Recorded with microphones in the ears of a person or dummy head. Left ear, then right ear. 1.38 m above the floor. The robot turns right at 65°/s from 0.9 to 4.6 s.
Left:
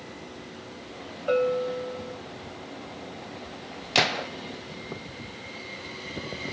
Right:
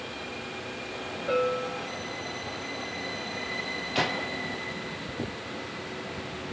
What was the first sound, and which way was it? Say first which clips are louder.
A bell: left 3 dB; 155° left.